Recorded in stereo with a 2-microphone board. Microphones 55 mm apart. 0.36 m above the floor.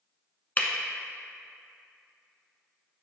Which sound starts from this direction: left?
Breaking glass, at 0.6 s.